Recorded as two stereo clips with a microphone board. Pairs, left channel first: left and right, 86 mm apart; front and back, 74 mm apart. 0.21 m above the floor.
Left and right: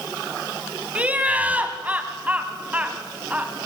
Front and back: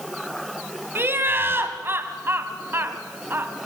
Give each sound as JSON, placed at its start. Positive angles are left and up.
{"t": 0.9, "sound": "laughter", "azimuth_deg": -150, "distance_m": 1.4}